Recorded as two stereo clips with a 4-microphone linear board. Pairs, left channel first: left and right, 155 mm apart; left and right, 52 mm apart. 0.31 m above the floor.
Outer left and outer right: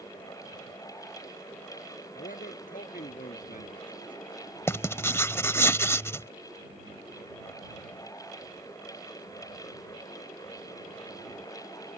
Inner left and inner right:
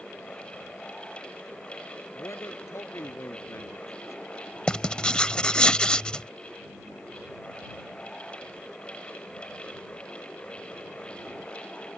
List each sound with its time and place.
2.1 s a man speaking: 60° left (ahead or behind)
4.7 s writing: 15° left (ahead or behind)